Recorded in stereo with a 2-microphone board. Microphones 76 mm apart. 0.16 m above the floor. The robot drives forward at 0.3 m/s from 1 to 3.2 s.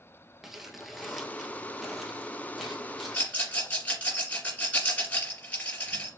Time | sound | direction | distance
0.4 | crumpling | 5° right (ahead or behind) | 0.6 m
3.1 | a rattle | 20° left (ahead or behind) | 2 m